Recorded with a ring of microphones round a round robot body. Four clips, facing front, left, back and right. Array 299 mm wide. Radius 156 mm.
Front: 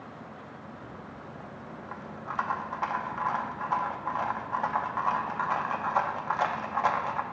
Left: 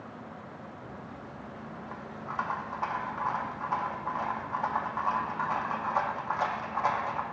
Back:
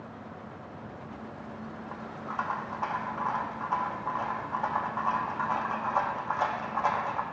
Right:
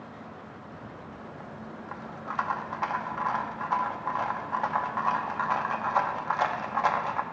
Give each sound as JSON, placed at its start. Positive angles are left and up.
{"t": 0.7, "sound": "a rattle", "azimuth_deg": -55, "distance_m": 0.6}